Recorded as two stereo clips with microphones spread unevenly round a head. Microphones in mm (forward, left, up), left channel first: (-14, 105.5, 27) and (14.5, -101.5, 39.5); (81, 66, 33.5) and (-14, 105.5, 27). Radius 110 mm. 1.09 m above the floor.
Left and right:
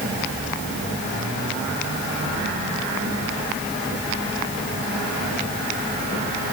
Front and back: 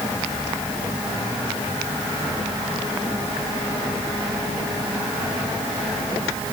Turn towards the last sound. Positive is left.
No sound to turn to.